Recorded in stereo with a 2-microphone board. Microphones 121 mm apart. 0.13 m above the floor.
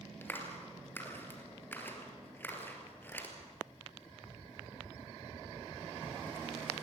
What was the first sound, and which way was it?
A clap, 15° left (ahead or behind).